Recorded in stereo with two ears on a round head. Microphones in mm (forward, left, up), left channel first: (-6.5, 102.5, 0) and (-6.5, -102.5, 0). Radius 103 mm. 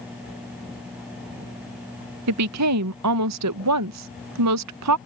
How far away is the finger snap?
No finger snap in this recording.